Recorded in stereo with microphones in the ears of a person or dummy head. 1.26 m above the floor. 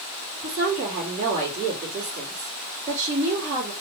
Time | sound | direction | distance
0.4 | a woman speaking | 30° right (ahead or behind) | 2 m